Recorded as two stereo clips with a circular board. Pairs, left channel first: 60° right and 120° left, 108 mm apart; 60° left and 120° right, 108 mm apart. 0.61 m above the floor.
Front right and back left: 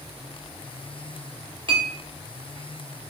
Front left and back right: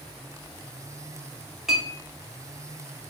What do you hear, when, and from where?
1.7 s a clink: 150° left, 1.0 m